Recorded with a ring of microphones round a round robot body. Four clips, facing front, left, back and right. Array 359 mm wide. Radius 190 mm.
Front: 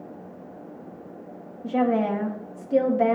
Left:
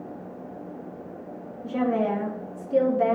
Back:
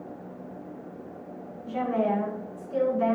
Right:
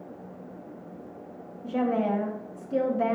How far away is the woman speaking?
About 1.8 m.